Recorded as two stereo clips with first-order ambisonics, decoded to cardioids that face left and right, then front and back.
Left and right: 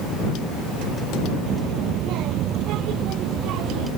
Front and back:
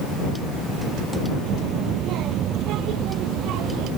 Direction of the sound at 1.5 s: 130° right.